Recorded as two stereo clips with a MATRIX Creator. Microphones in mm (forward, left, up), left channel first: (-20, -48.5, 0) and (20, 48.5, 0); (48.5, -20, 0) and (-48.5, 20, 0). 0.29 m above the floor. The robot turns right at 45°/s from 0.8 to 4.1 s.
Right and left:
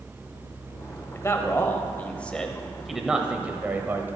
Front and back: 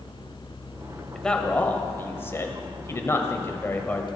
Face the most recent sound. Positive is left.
turn(degrees=35)